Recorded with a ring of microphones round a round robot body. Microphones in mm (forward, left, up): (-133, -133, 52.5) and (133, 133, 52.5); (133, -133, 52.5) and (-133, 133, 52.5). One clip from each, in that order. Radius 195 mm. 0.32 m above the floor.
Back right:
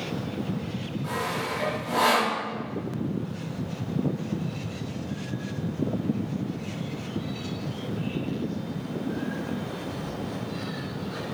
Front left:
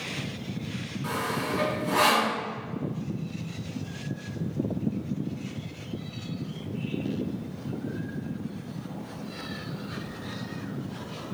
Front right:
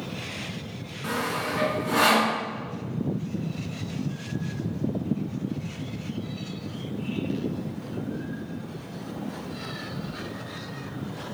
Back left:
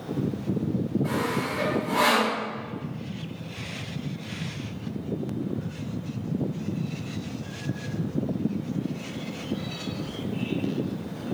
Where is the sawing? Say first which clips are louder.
Even, front right 3 dB; 15° right, 5.5 m.